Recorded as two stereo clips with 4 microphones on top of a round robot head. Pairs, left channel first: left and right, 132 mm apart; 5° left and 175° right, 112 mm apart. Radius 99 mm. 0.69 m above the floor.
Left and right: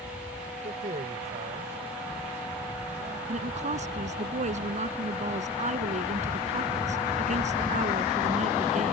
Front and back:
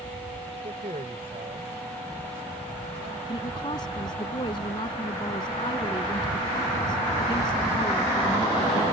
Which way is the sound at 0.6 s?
130° right.